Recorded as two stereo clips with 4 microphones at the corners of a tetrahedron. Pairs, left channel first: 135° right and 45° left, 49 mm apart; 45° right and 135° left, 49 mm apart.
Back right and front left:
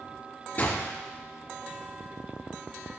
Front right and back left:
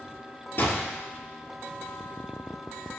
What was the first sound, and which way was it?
A gunshot, 80° right.